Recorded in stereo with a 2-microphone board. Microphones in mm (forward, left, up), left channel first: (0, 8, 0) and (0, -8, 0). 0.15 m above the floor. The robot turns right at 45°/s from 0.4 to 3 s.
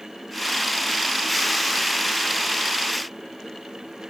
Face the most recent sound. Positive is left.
No sound to turn to.